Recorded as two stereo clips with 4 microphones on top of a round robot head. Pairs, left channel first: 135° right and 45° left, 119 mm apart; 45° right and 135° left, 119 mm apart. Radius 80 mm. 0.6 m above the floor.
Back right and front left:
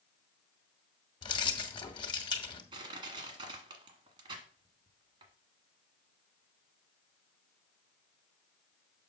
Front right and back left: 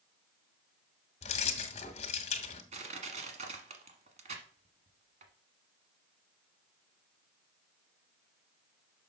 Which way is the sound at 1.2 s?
80° right.